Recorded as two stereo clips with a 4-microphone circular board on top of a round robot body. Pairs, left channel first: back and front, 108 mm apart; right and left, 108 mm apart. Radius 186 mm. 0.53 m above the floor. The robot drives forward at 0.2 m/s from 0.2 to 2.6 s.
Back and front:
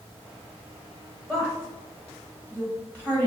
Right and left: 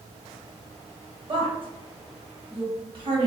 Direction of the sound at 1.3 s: 95° left.